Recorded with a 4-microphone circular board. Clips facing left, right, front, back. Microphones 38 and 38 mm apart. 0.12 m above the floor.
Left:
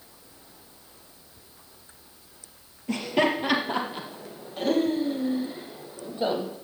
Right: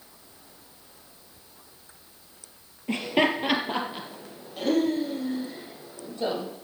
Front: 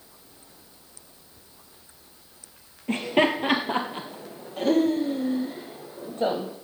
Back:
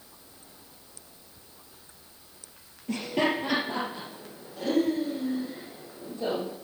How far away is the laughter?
About 2 m.